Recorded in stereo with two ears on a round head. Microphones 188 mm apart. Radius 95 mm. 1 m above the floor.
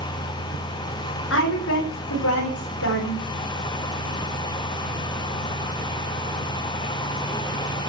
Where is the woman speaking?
60° left (ahead or behind), 4 m; by 3.3 s 75° left (ahead or behind), 3.5 m.